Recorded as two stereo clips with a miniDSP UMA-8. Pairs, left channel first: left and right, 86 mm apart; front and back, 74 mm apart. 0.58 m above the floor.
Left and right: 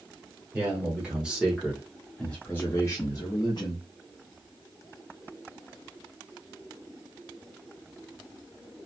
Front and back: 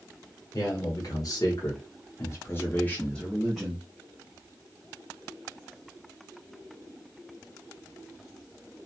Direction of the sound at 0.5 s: 20° right.